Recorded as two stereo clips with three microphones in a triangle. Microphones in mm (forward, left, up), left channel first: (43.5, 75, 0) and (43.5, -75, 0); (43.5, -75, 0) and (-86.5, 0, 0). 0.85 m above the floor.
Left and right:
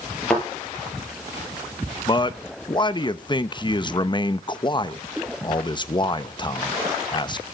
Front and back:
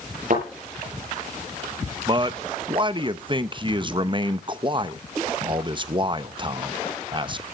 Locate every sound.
0.3 s a thud: 175° left, 9.5 m
2.1 s a man speaking: 120° left, 0.6 m